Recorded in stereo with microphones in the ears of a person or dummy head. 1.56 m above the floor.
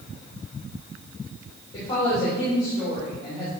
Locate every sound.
1.7 s a woman speaking: 25° left (ahead or behind), 2.5 m